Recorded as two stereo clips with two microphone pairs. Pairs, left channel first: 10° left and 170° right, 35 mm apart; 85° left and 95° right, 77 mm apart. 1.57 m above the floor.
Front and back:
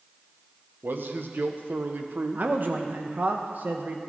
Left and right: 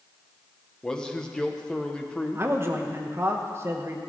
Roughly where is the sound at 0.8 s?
Behind.